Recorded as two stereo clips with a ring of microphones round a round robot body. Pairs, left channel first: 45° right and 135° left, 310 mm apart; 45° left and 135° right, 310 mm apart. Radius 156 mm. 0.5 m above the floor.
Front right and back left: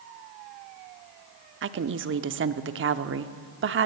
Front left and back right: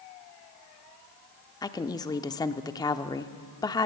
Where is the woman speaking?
115° left, 0.8 m.